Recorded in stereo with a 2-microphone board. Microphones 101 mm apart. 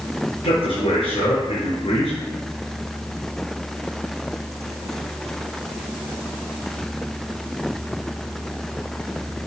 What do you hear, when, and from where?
0.4 s a man speaking: 70° left (ahead or behind), 5 m